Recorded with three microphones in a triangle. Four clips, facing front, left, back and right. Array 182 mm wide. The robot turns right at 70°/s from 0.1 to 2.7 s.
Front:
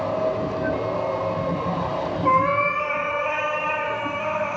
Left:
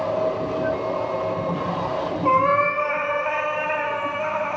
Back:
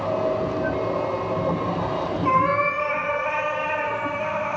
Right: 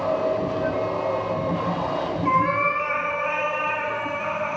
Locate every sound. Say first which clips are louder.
2.2 s a cat meowing: left 3 dB, front 1 dB; 45° left, 0.7 m; by 4.6 s 80° left, 0.7 m